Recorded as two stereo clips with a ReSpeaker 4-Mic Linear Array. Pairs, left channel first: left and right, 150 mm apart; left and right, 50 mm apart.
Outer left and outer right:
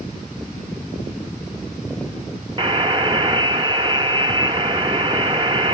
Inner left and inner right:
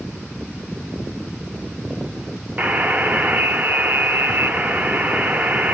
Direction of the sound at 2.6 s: 35° right (ahead or behind).